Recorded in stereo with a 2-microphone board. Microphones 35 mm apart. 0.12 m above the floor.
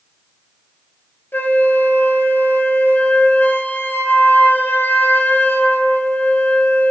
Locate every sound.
1.3 s a flute: 60° left (ahead or behind), 0.6 m